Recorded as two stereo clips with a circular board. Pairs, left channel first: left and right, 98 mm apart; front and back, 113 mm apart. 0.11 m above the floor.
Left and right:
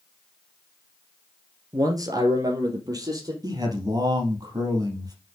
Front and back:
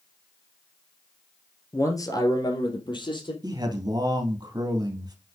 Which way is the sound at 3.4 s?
130° right.